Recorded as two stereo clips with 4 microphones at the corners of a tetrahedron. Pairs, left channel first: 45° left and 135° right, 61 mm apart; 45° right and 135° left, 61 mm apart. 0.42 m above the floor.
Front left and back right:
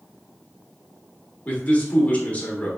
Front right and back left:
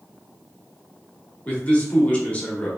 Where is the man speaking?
Straight ahead, 0.9 m.